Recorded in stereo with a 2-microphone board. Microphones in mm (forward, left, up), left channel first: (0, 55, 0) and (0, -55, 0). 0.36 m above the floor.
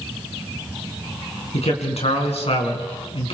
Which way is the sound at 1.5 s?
70° left (ahead or behind).